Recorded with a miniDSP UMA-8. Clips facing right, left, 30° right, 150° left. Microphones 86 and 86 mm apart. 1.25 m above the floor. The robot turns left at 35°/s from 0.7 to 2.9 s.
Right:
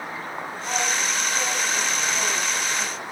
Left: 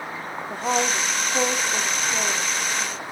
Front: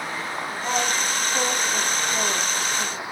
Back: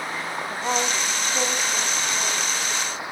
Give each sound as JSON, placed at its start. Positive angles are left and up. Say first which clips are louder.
{"t": 0.5, "sound": "a woman speaking", "louder": "left 5 dB, even", "azimuth_deg": 80, "distance_m": 3.0}